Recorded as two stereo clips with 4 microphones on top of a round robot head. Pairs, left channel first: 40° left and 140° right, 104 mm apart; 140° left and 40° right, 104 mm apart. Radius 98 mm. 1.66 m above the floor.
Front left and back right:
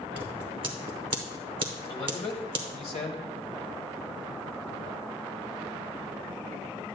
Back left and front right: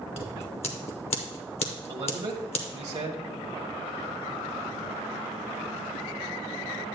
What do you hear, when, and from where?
0.2 s scissors: 175° left, 0.9 m
1.9 s a man speaking: 5° left, 0.9 m